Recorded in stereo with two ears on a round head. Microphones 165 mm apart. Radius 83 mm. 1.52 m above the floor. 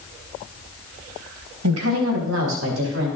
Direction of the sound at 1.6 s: 80° right.